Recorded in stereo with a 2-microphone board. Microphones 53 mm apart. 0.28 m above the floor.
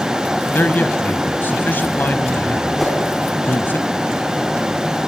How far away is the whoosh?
About 3.5 m.